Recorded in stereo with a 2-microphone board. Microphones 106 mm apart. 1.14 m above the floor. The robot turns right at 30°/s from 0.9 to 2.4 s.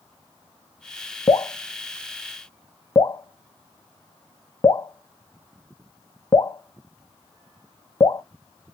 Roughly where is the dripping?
Left.